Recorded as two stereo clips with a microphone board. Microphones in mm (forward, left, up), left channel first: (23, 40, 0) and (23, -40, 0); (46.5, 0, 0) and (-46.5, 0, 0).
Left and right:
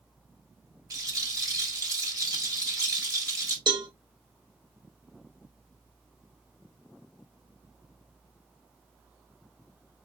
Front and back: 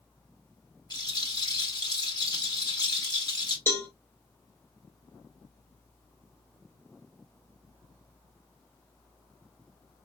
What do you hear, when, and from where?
0.9 s a rattle: 45° right, 1.1 m
3.7 s a cowbell: 65° right, 0.7 m